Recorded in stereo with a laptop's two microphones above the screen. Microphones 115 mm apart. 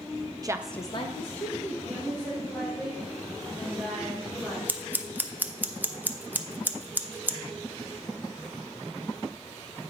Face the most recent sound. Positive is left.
turn(degrees=-15)  # may be behind; listen again after turning